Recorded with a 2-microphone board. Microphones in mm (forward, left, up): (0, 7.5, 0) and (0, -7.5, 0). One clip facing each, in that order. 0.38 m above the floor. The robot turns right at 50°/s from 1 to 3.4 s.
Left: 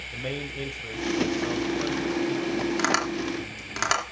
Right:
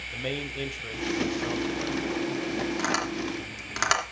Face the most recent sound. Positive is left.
turn(degrees=-10)  # may be behind; listen again after turning